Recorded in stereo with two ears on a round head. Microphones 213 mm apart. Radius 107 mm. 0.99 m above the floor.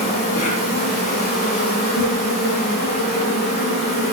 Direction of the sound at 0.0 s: 25° left (ahead or behind).